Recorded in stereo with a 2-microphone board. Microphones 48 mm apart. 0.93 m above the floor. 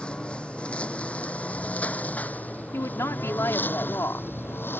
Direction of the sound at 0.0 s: 20° left (ahead or behind).